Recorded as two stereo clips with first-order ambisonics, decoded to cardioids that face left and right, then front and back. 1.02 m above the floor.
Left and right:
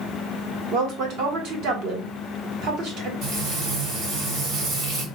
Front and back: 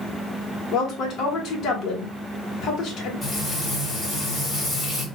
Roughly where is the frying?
Right.